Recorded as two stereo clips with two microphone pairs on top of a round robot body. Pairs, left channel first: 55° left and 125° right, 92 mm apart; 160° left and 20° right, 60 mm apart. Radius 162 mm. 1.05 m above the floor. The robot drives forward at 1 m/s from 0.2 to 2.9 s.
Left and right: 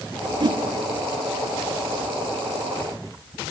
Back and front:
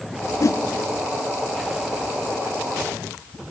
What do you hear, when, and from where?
0.4 s a whoosh: 160° right, 0.7 m; by 0.6 s 165° right, 0.9 m